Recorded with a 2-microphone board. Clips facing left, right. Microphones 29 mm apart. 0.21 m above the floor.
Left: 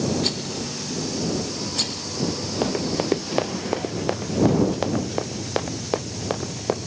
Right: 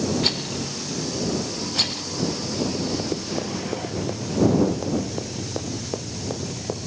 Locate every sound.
0.2 s a rattle: 20° right (ahead or behind)
2.6 s running footsteps: 75° left (ahead or behind); by 6.9 s 55° left (ahead or behind)